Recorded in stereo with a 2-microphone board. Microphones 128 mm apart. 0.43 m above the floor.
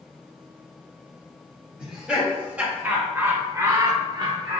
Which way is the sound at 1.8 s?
5° right (ahead or behind).